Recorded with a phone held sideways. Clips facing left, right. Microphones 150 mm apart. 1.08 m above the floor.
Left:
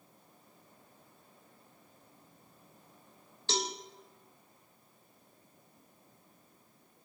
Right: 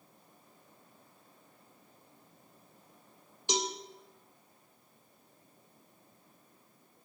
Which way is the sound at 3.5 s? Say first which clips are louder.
Right 2 dB; 15° right (ahead or behind).